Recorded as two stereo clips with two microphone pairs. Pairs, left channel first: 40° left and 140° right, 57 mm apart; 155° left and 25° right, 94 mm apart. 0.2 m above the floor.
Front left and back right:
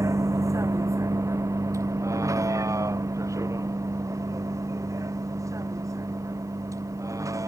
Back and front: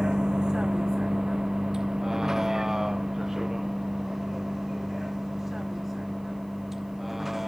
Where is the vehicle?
105° right; by 7.5 s 115° right.